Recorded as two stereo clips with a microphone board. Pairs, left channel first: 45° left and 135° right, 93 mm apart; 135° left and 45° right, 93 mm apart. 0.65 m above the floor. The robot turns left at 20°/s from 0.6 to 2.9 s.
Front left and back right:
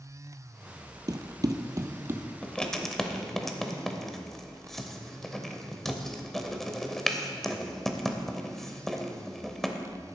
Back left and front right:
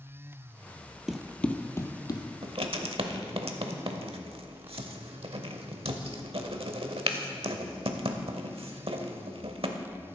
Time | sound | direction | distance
1.1 | running footsteps | 125° right | 0.8 m
2.4 | writing | 35° right | 0.9 m